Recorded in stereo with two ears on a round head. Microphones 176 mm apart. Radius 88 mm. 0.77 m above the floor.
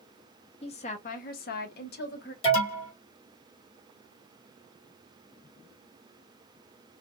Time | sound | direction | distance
0.6 | a woman speaking | 30° left (ahead or behind) | 0.8 m
2.4 | an alarm | 30° left (ahead or behind) | 1.2 m